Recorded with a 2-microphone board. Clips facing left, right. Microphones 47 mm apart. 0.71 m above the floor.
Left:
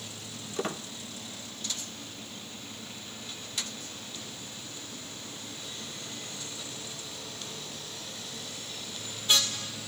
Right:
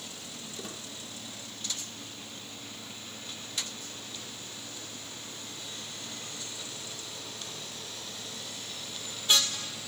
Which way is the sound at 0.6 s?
45° left (ahead or behind).